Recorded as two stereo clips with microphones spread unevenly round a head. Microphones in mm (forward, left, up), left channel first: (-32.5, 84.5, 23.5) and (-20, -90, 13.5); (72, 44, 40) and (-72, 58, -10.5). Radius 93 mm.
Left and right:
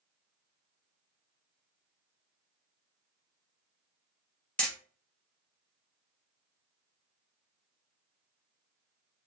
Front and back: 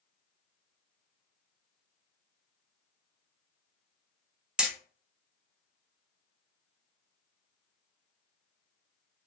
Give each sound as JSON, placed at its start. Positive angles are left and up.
{"t": 4.6, "sound": "hammering", "azimuth_deg": 35, "distance_m": 0.8}